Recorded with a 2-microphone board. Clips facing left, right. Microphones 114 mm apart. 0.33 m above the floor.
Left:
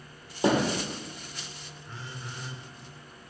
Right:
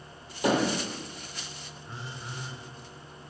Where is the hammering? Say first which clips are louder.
Left 1 dB; 25° left (ahead or behind), 3 m.